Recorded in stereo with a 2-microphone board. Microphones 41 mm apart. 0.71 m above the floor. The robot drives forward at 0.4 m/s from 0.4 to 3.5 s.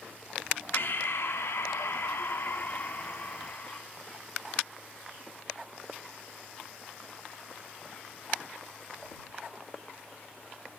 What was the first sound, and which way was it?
Breathing, 55° left (ahead or behind).